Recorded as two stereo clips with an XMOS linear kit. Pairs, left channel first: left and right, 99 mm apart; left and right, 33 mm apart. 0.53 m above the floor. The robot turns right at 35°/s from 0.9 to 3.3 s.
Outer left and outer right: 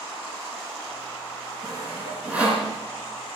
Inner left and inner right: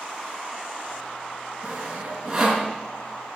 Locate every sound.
1.6 s sawing: 40° right (ahead or behind), 4 m; by 2.7 s centre (ahead or behind), 4 m